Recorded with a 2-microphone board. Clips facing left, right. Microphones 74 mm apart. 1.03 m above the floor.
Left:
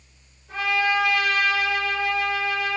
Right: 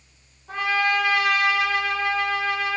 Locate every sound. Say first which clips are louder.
0.5 s a trumpet: even; 70° right (ahead or behind), 1.1 m